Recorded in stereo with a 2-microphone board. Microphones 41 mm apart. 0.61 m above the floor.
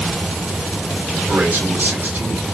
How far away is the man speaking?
About 2.5 m.